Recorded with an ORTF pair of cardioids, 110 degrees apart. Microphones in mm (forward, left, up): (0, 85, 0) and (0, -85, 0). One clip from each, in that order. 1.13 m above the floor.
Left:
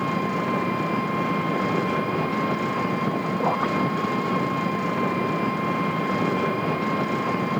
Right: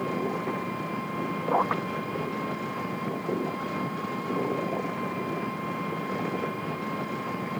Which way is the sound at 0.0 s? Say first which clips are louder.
Left 5 dB; 45° left.